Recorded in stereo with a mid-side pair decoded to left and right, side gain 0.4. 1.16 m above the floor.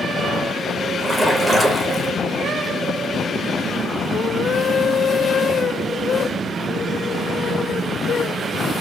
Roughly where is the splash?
Ahead.